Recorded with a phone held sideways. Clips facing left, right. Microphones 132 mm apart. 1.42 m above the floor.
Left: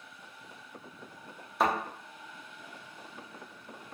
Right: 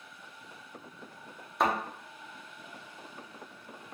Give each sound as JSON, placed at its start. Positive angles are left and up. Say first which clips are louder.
{"t": 1.6, "sound": "a thud", "louder": "even", "side_deg": 0, "distance_m": 0.9}